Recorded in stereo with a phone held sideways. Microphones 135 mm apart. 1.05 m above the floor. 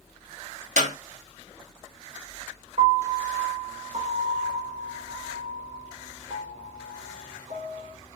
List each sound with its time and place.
0.8 s a clap: 65° right (ahead or behind), 1.3 m
2.8 s a piano: 45° right (ahead or behind), 1.3 m